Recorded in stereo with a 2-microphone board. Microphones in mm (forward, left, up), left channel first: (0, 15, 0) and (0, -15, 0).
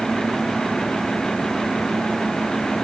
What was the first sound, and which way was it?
Only background noise.